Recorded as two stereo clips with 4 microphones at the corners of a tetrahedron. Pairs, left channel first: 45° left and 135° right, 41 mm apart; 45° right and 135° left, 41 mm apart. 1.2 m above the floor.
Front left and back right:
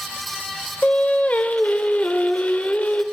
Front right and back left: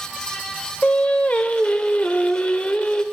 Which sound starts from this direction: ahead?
Singing, at 0.8 s.